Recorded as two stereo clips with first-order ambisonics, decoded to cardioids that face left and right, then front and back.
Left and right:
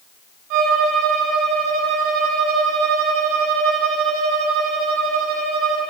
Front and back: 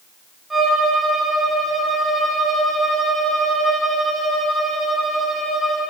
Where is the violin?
100° right, 2 m.